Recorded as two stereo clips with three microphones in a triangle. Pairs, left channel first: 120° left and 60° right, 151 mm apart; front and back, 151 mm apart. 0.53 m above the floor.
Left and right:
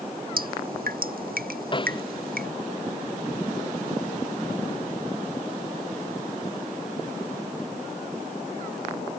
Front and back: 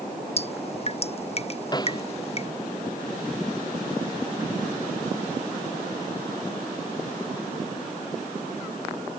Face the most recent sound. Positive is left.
turn(degrees=65)